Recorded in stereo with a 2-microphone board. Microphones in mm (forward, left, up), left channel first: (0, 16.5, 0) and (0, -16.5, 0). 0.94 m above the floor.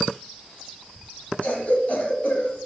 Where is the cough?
45° left (ahead or behind), 2 m.